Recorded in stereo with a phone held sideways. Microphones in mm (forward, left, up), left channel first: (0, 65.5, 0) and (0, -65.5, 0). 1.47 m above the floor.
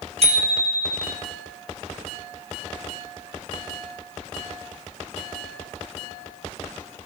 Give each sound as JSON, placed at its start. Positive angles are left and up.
{"t": 0.2, "sound": "a bicycle bell", "side_deg": -55, "distance_m": 3.5}